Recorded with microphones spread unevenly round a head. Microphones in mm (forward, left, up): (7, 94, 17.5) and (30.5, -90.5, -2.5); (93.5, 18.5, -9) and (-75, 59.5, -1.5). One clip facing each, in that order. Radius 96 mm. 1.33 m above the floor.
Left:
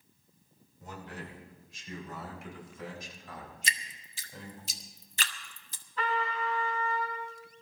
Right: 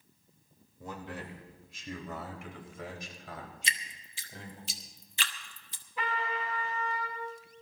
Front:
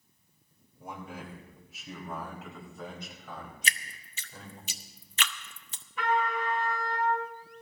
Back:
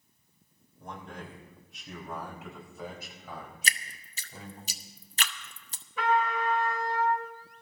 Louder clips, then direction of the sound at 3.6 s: Left 1 dB, even; 125° left.